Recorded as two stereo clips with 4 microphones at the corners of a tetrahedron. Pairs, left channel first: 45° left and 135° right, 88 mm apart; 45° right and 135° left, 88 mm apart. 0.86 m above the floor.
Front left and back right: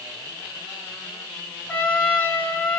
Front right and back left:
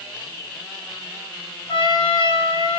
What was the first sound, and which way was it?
A trumpet, 25° right.